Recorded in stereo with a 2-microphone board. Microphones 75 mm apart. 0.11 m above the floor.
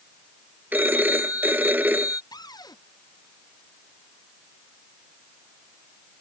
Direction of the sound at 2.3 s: 60° left (ahead or behind).